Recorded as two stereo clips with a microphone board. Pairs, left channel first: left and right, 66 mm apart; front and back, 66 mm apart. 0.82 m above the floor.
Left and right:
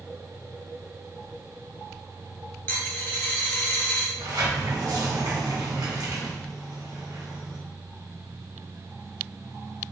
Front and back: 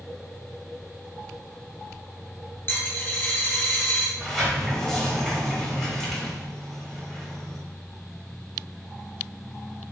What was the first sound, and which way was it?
A dropped coin, 45° left.